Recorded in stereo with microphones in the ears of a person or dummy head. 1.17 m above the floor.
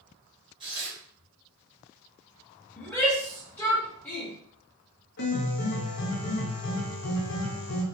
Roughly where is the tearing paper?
Right.